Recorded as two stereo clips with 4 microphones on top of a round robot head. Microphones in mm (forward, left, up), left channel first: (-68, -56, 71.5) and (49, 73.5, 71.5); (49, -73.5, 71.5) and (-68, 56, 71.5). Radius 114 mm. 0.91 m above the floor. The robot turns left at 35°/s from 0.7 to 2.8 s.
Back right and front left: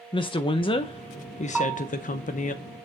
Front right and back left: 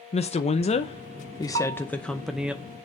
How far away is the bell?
About 5.5 m.